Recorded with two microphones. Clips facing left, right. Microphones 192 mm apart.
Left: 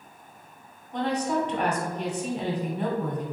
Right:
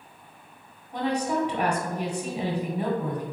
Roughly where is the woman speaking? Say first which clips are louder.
Even; centre.